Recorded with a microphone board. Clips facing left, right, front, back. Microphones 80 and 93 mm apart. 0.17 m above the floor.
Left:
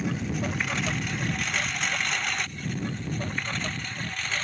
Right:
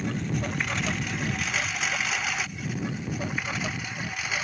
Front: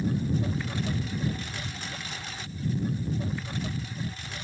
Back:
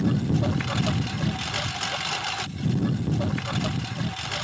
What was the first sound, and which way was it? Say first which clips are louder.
A lawn mower: even, back 4 dB; straight behind.